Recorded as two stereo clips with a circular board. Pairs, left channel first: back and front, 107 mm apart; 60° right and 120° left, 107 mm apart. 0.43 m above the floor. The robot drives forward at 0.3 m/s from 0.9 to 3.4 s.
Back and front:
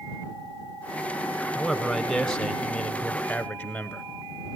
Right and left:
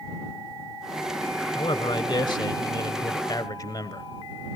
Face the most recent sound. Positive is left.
turn(degrees=-110)